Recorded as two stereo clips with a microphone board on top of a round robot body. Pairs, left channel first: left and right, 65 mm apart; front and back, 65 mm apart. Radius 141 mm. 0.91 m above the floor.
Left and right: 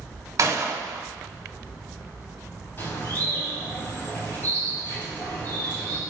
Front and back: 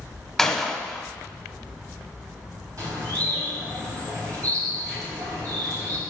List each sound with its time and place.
0.4 s a gunshot: 85° right, 1.4 m
2.8 s a bird: 145° left, 3.5 m